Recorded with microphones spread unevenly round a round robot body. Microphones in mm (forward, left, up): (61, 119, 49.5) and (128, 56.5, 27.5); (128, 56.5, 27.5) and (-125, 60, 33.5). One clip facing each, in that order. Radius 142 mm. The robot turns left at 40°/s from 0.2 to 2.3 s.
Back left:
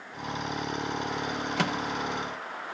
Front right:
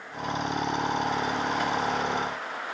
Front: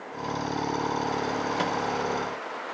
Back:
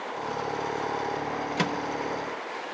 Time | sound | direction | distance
1.6 | a microwave | 125° left | 1.1 m